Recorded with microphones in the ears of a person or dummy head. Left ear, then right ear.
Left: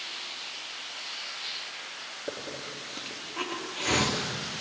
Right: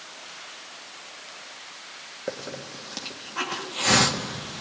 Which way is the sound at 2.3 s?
65° right (ahead or behind).